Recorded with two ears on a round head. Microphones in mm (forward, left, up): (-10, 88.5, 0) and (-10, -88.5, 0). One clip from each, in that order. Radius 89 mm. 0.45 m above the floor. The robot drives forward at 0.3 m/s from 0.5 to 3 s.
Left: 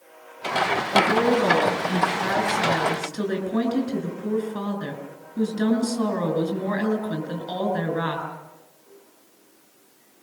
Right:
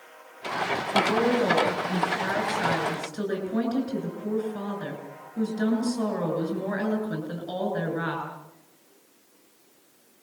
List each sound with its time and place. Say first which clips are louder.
0.9 s a woman speaking: left 3 dB; 10° left (ahead or behind), 7.5 m